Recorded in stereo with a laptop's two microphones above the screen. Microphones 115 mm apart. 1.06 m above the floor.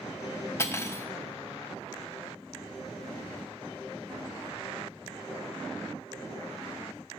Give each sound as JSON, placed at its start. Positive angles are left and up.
{"t": 0.6, "sound": "cutlery clinking", "side_deg": 20, "distance_m": 0.6}